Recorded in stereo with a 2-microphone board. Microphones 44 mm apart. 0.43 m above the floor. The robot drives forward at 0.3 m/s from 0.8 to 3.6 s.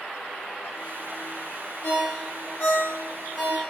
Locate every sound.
1.8 s a ringtone: 75° left (ahead or behind), 0.9 m; by 3.6 s 50° left (ahead or behind), 1.1 m